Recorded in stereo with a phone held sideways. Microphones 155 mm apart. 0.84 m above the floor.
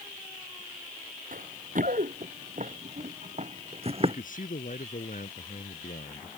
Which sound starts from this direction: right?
Running footsteps, at 1.3 s.